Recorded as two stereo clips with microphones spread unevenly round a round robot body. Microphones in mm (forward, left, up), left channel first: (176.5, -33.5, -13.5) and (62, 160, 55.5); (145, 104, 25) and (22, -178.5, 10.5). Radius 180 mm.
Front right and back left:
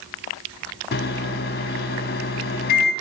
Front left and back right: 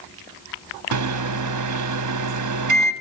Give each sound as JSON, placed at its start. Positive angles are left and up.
{"t": 0.9, "sound": "a microwave", "azimuth_deg": -95, "distance_m": 0.8}